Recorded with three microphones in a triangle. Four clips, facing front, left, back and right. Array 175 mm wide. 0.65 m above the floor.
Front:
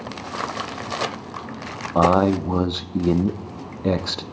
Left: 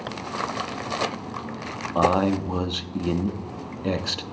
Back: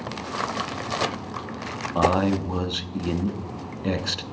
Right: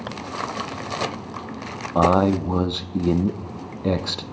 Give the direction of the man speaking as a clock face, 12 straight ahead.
1 o'clock.